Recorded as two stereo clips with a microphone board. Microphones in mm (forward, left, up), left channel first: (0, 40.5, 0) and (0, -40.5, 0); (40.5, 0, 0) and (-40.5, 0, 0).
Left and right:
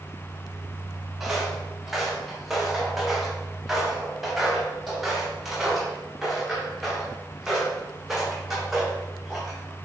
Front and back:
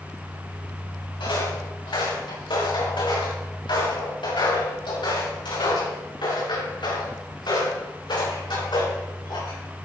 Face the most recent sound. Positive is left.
turn(degrees=-5)